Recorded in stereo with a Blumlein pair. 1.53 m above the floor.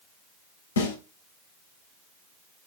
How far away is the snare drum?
About 3.5 m.